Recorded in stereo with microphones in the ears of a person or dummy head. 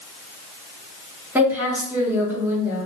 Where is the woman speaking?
10° right (ahead or behind), 0.9 m.